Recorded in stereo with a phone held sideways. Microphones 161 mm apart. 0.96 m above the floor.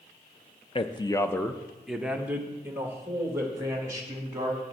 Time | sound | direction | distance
0.8 | a man speaking | 30° left (ahead or behind) | 0.5 m